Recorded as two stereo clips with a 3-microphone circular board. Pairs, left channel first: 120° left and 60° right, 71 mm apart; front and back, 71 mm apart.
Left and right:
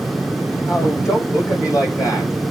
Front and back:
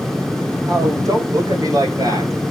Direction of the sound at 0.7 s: 155° left.